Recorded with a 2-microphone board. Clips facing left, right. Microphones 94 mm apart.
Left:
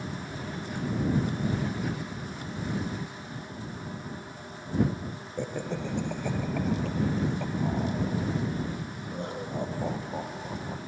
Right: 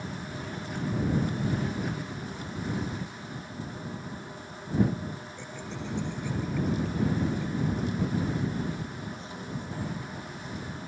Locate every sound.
5.4 s laughter: 50° left (ahead or behind); by 10.8 s 60° left (ahead or behind)